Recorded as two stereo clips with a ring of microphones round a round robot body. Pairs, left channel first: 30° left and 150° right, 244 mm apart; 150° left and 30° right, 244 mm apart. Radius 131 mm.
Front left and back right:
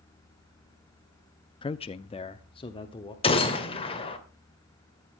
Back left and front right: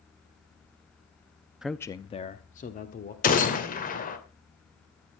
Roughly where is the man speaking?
Ahead left.